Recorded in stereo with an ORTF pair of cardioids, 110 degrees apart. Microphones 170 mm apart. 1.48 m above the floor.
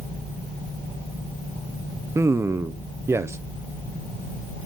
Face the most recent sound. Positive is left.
turn(degrees=-15)